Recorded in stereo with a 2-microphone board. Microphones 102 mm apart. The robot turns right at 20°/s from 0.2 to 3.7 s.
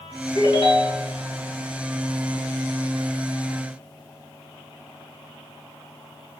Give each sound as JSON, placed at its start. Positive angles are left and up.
{"t": 0.3, "sound": "a ringtone", "side_deg": 55, "distance_m": 3.0}